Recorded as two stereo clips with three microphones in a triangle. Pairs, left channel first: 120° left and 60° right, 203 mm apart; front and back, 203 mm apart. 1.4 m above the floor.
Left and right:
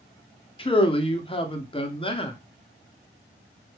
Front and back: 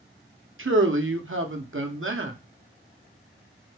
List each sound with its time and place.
0.6 s a man speaking: 175° right, 0.7 m